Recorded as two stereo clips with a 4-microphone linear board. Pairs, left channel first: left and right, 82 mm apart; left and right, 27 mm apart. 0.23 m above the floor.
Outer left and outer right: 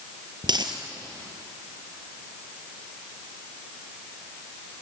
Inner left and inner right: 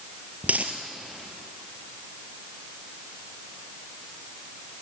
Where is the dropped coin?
60° right (ahead or behind), 1.9 m.